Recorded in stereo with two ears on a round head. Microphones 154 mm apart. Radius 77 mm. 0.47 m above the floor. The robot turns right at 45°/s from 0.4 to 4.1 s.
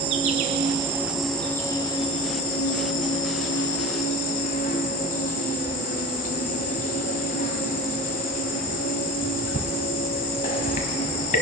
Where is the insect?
40° right, 1.3 m; by 11.4 s 130° left, 1.3 m.